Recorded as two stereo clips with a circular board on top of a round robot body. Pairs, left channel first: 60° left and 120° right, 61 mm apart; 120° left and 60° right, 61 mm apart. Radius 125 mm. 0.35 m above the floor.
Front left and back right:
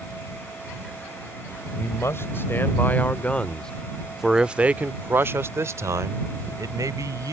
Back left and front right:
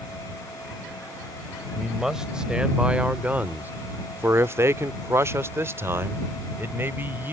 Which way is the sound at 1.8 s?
20° left.